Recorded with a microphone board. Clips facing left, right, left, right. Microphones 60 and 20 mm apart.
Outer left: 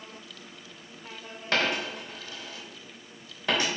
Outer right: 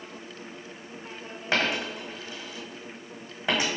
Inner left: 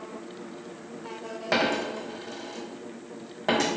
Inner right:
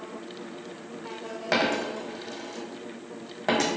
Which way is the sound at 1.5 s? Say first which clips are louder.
Outer right 1 dB, even; 15° right (ahead or behind).